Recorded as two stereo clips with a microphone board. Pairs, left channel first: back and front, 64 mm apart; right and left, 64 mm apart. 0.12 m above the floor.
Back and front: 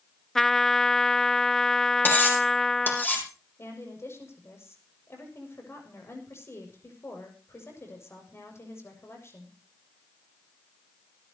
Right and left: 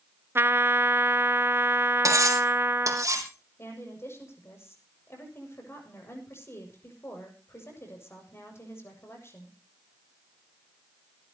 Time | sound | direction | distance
0.3 | a trumpet | 100° left | 0.6 m
2.0 | cutlery clinking | 120° left | 3.5 m
3.6 | a woman speaking | 135° right | 6.5 m